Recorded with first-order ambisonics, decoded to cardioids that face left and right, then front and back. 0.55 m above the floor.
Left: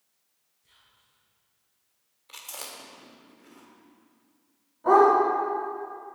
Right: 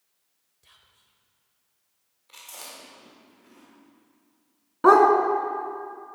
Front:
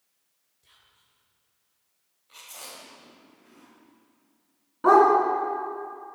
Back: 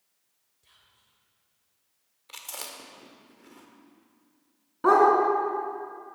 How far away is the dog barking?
About 1.7 m.